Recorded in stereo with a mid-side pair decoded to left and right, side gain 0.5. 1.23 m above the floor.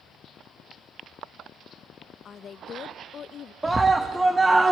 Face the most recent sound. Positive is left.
turn(degrees=-15)